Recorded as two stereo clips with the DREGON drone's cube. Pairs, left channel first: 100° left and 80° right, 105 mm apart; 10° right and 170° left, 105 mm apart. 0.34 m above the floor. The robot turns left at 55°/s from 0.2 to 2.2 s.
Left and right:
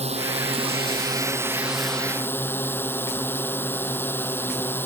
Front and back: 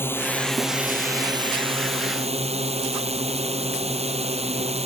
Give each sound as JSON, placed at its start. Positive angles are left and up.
{"t": 0.0, "sound": "a drone", "azimuth_deg": -80}